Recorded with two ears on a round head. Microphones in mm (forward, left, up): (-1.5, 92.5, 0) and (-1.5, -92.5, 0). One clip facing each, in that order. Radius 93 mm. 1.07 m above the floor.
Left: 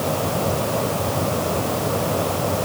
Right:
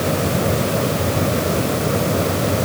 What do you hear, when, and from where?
Only background noise.